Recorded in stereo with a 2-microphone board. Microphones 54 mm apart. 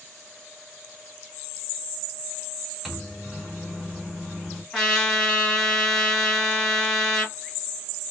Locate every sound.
2.9 s a microwave: 5° right (ahead or behind), 0.9 m
4.7 s a trumpet: 10° left (ahead or behind), 1.7 m